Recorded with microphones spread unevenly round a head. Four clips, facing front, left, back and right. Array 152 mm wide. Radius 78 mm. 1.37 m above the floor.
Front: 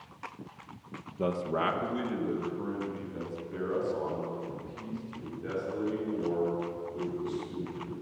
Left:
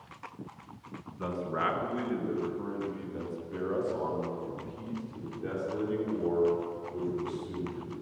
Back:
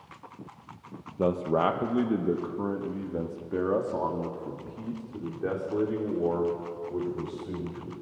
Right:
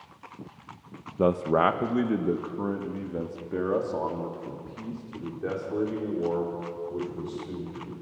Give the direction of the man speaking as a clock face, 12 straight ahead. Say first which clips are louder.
Right 10 dB, back 5 dB; 4 o'clock.